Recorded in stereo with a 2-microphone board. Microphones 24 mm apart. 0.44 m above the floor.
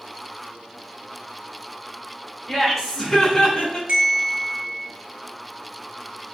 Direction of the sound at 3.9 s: 40° right (ahead or behind).